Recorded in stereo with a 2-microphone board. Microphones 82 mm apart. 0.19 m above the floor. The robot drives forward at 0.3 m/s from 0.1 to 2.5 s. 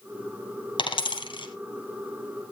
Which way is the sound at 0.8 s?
75° left (ahead or behind).